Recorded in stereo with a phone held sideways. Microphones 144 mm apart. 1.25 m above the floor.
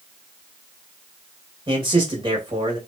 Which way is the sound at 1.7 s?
35° right (ahead or behind).